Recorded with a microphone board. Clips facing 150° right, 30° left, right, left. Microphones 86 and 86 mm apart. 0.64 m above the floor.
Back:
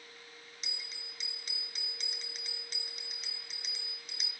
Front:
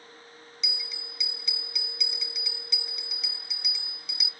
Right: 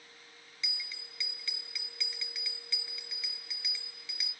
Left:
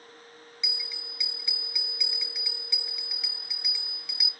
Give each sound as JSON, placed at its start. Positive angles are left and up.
{"t": 0.6, "sound": "a bell", "azimuth_deg": 160, "distance_m": 1.5}